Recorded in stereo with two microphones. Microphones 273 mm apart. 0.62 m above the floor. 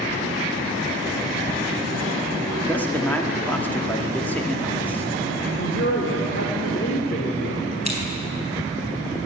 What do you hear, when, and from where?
2.6 s a man speaking: 5° left (ahead or behind), 1.6 m
5.6 s a man speaking: 50° left (ahead or behind), 1.5 m
7.8 s scissors: 75° left (ahead or behind), 4 m